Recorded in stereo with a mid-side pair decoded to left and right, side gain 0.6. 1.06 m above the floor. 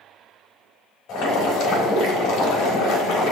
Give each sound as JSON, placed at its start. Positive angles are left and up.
{"t": 1.1, "sound": "boiling", "azimuth_deg": 65, "distance_m": 4.0}